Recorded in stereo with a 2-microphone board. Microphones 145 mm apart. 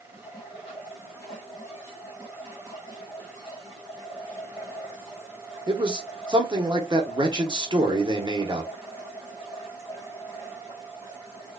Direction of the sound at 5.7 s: 35° right (ahead or behind).